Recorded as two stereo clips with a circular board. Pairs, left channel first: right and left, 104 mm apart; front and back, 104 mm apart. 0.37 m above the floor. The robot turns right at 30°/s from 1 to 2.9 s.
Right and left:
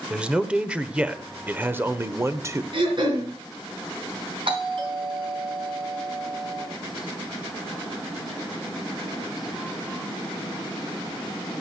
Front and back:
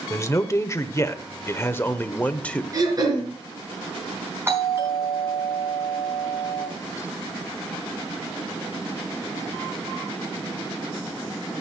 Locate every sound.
0.1 s a man speaking: 20° left, 0.8 m; by 2.6 s 70° left, 0.8 m
2.7 s throat clearing: 125° left, 4 m; by 3.3 s 130° left, 4 m
4.5 s a doorbell: 115° left, 4 m